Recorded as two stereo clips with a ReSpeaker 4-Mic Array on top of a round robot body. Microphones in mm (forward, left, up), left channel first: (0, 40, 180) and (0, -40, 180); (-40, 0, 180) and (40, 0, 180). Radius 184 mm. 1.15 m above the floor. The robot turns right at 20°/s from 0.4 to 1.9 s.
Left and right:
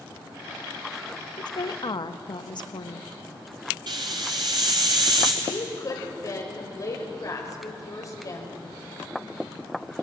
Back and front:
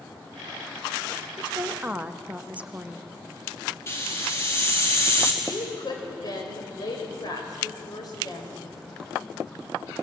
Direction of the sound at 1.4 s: 60° left.